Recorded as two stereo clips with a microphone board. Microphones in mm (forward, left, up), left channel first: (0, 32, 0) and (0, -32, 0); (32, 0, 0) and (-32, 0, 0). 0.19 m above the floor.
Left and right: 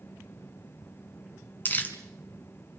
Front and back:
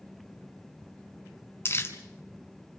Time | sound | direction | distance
1.6 | crumpling | 40° left | 1.8 m